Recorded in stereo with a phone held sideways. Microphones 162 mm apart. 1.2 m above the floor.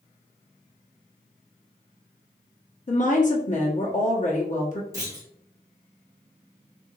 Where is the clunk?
20° right (ahead or behind), 1.3 m.